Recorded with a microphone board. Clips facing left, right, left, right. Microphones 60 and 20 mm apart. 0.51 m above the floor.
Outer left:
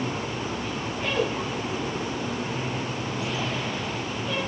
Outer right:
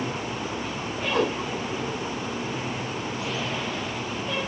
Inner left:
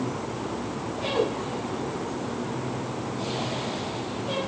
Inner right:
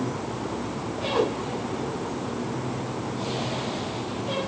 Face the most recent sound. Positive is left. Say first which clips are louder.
# outer right 3 dB, inner right 2 dB
turn(degrees=-75)  # may be behind; listen again after turning